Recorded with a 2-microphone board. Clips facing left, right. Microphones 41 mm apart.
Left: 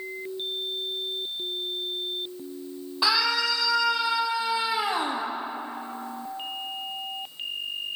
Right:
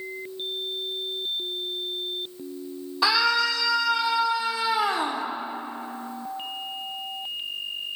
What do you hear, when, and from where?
3.0 s a scream: 5° left (ahead or behind), 3.5 m; by 5.2 s 25° left (ahead or behind), 2.5 m